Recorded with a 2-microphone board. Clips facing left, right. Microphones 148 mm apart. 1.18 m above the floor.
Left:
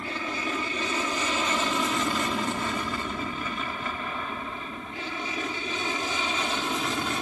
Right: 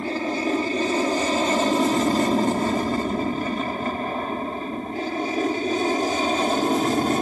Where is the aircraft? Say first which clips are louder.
Right 8 dB; 35° right (ahead or behind); by 7.2 s 45° right (ahead or behind).